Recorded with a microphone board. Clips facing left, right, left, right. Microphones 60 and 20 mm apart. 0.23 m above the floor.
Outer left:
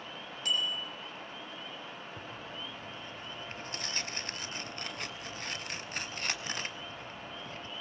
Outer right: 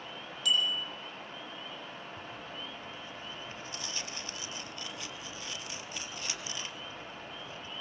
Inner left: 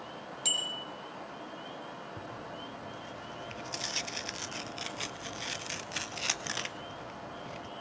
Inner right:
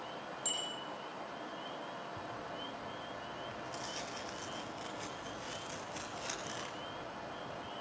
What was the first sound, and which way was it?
A bicycle bell, 40° left (ahead or behind).